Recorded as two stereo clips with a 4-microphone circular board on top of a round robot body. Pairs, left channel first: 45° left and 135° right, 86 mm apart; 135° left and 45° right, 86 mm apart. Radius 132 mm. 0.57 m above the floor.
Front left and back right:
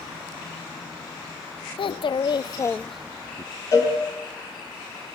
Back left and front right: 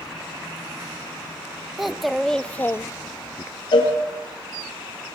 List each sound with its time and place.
1.8 s a child speaking: 40° left, 1.0 m; by 3.5 s 175° right, 0.7 m
3.7 s a cowbell: 100° left, 4.5 m